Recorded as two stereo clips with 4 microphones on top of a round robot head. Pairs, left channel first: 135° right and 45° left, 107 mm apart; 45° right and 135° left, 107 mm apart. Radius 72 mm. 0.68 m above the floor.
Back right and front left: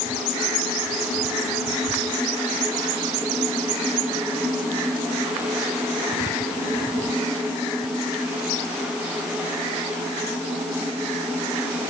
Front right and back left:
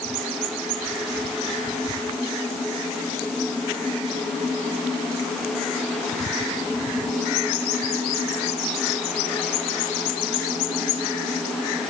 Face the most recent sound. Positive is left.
No sound to turn to.